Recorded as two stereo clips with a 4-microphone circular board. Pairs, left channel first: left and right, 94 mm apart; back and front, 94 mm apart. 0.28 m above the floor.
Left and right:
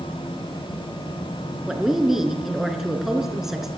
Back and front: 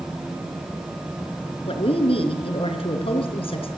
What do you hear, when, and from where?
1.7 s a woman speaking: 175° right, 4 m